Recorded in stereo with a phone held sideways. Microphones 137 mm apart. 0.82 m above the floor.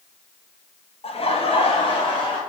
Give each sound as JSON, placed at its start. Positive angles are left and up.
{"t": 1.0, "sound": "laughter", "side_deg": 45, "distance_m": 0.6}